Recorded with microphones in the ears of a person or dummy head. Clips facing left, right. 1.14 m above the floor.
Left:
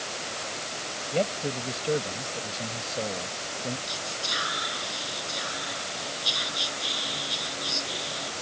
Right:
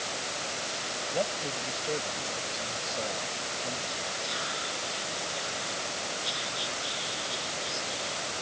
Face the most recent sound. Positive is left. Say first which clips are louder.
# even
turn(degrees=70)  # may be behind; listen again after turning